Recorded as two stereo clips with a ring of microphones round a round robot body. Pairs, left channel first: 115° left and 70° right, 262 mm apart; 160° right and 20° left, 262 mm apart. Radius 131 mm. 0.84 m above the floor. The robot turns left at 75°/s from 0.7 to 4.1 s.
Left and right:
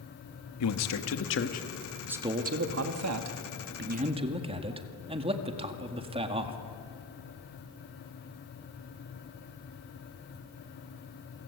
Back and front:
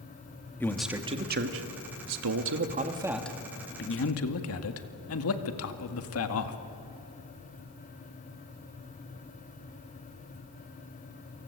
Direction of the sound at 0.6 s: 120° left.